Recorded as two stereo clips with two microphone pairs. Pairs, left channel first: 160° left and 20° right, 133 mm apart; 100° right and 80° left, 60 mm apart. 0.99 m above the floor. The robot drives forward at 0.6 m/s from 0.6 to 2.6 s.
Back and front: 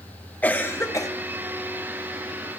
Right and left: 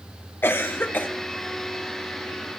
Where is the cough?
130° right, 0.9 m; by 1.1 s 145° right, 1.1 m.